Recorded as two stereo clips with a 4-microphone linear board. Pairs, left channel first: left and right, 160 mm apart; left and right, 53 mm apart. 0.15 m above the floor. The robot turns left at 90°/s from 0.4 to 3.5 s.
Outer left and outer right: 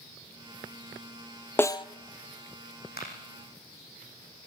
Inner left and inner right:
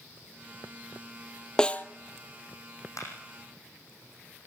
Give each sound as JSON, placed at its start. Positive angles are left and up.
{"t": 1.6, "sound": "a snare drum", "side_deg": 15, "distance_m": 0.7}
{"t": 3.0, "sound": "a clap", "side_deg": 80, "distance_m": 8.0}